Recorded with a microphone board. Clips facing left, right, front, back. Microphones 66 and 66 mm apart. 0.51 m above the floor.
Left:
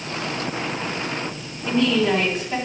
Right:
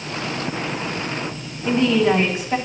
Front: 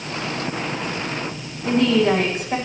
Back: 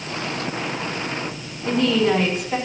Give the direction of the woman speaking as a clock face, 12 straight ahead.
1 o'clock.